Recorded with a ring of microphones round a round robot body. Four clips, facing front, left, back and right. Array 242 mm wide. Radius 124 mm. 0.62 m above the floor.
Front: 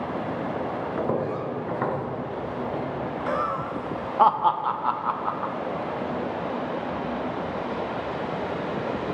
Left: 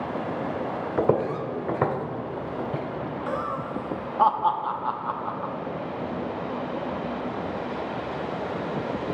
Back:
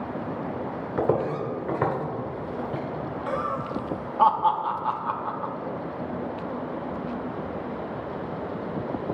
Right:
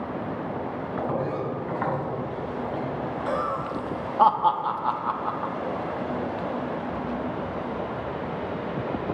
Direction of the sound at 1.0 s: 90° left.